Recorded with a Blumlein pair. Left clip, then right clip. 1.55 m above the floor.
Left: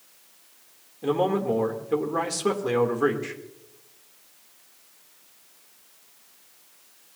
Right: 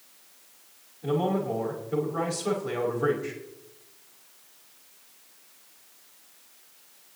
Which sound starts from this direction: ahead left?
A man speaking, at 1.0 s.